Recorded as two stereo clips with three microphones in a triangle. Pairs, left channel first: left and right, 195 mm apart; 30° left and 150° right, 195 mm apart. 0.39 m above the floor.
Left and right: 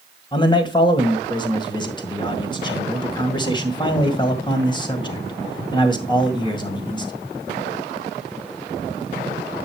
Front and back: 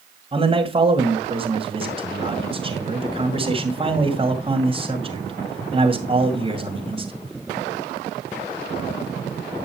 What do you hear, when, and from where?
0.3 s a man speaking: 155° left, 2 m